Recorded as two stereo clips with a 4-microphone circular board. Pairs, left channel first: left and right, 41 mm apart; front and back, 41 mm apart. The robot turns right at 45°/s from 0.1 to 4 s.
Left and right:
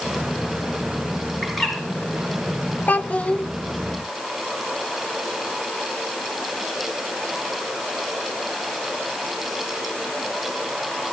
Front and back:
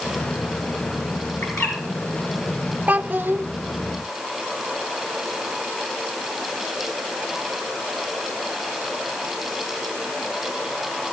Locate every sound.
1.4 s a bird: straight ahead, 4 m; by 1.8 s 15° left, 4 m
2.9 s a child speaking: 130° left, 0.6 m; by 3.4 s 155° left, 0.6 m